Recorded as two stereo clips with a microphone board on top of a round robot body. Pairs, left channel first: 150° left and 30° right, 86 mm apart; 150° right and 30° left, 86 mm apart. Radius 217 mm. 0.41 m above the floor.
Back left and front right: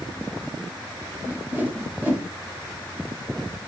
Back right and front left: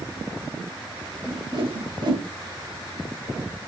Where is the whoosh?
40° left, 2.5 m.